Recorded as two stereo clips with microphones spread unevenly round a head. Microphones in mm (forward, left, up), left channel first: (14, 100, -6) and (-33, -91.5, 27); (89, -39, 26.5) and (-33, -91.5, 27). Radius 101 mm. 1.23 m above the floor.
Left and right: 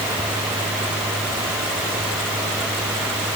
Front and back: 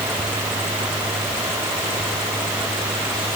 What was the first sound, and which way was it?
Only background noise.